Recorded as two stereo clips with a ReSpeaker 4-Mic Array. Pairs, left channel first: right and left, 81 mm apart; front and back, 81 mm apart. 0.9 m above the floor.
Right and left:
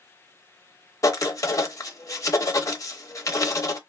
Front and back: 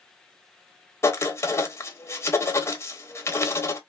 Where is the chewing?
No chewing in this recording.